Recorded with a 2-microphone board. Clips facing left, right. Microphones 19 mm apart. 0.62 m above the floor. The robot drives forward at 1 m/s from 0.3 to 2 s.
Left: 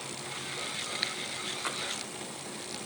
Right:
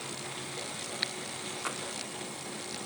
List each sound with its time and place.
1.6 s tapping: 5° left (ahead or behind)